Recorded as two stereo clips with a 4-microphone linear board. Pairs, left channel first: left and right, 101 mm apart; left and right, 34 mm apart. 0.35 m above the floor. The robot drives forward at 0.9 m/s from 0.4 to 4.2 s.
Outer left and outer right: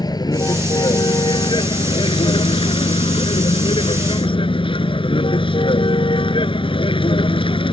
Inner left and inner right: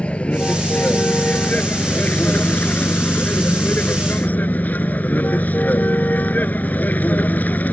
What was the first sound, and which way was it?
A vehicle, 45° left (ahead or behind).